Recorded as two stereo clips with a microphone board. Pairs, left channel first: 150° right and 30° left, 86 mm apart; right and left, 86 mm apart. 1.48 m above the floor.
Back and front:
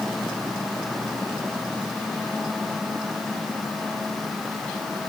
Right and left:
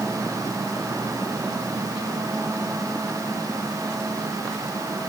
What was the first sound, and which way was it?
Only background noise.